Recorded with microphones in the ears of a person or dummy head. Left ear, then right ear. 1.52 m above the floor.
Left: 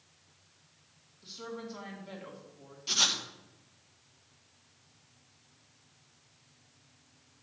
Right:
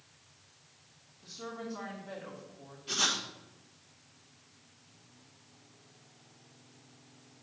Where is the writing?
45° left (ahead or behind), 1.5 m.